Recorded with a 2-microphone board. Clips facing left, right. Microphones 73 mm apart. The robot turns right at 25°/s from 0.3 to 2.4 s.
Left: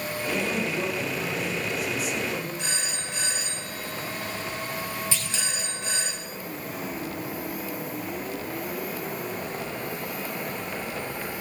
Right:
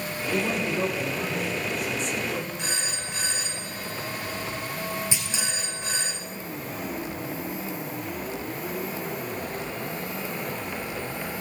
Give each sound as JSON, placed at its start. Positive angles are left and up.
{"t": 0.3, "sound": "a man speaking", "azimuth_deg": -35, "distance_m": 2.5}
{"t": 2.6, "sound": "a phone ringing", "side_deg": 0, "distance_m": 7.0}
{"t": 5.1, "sound": "a clunk", "side_deg": -15, "distance_m": 2.5}